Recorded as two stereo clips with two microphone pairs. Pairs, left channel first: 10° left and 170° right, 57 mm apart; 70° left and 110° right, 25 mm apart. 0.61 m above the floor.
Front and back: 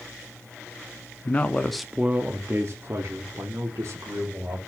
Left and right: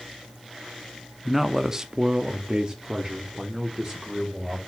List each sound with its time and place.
1.2 s a man speaking: 30° right, 0.7 m; by 4.6 s straight behind, 2 m